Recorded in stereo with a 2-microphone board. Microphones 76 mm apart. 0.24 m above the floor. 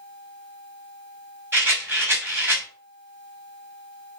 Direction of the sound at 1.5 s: 30° right (ahead or behind).